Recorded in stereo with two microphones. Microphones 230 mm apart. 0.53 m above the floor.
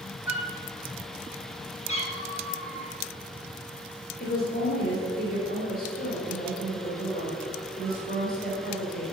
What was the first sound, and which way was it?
A flute, 25° right (ahead or behind).